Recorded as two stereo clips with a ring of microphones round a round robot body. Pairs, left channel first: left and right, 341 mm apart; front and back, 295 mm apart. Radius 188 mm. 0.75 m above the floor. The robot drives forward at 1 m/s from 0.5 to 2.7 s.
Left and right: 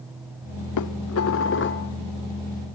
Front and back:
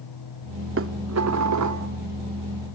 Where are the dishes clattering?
130° left, 1.4 m; by 1.9 s 150° left, 2.5 m.